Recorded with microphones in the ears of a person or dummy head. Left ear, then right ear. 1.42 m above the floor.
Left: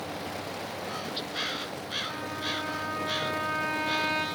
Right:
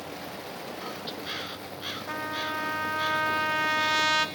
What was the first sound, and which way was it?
A trumpet, 80° right.